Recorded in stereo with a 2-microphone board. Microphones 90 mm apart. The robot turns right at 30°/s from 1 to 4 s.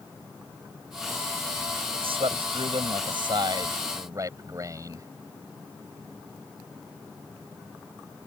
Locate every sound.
1.9 s a man speaking: 100° right; by 5.1 s 35° right